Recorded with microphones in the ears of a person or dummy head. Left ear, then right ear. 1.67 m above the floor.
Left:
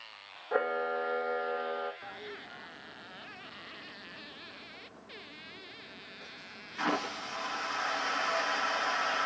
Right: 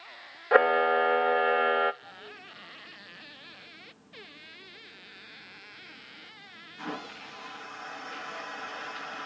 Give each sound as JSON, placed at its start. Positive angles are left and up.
{"t": 0.5, "sound": "a camera shutter", "side_deg": -50, "distance_m": 0.6}
{"t": 2.0, "sound": "a toilet flushing", "side_deg": 50, "distance_m": 1.2}